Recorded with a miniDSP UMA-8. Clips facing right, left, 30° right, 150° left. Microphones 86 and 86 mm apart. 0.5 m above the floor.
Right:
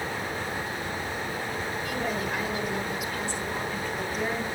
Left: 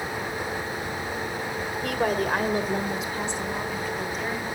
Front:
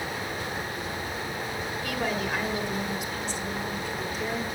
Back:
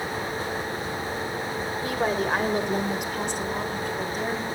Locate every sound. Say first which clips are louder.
1.8 s a woman speaking: left 8 dB, back 5 dB; 95° left, 1.8 m; by 4.5 s 175° right, 2 m